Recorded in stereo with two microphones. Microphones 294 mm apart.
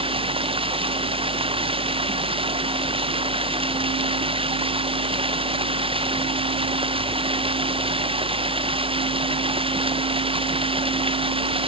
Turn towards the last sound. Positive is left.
turn(degrees=-20)  # may be behind; listen again after turning